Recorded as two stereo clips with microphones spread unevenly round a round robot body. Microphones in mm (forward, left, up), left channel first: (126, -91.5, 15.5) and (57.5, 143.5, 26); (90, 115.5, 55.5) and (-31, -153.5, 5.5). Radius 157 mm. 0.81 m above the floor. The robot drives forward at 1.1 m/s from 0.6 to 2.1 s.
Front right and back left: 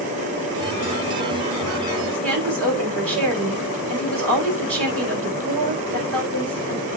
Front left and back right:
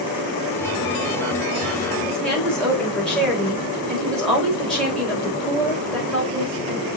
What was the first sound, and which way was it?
A woman speaking, 155° left.